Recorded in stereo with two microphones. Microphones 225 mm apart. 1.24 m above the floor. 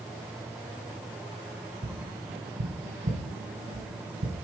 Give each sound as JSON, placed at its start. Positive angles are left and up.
{"t": 1.8, "sound": "tapping", "side_deg": -65, "distance_m": 2.0}